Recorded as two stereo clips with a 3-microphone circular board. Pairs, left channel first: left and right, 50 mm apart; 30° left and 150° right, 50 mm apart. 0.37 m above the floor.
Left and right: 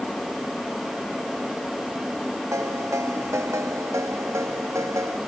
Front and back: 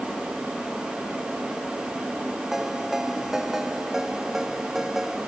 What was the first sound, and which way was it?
A ringtone, 65° right.